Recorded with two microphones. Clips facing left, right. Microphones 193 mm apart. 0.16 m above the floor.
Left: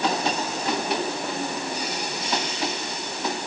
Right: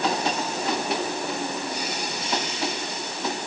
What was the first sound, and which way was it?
Only background noise.